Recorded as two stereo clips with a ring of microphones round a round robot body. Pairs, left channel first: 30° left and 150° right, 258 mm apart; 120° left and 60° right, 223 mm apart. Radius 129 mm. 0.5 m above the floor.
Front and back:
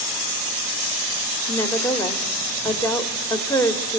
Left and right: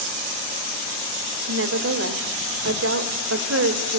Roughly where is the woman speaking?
Ahead right.